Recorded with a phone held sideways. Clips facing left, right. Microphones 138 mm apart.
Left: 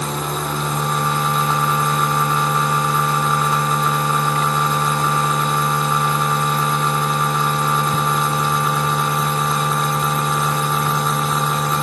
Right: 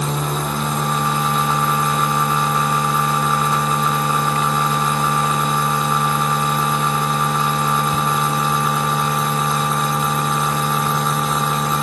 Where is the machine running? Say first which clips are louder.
Right 1 dB; centre (ahead or behind), 0.7 m.